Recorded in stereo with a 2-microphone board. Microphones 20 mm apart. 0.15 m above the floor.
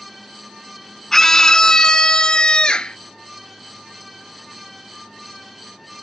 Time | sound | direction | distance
1.1 | a scream | 20° left (ahead or behind) | ?